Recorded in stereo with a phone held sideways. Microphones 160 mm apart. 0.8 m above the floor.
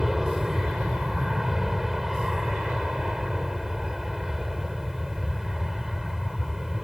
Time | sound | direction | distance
0.0 | an aircraft | 5° right (ahead or behind) | ?